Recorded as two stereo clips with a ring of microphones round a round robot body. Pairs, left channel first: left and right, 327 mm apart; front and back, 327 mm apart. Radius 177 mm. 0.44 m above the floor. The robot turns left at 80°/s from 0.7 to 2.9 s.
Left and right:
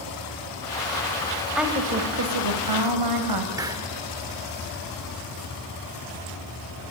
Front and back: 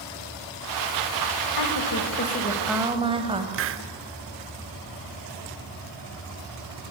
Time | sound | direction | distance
1.6 | a woman speaking | straight ahead | 3 m
3.5 | a hiss | 165° right | 0.9 m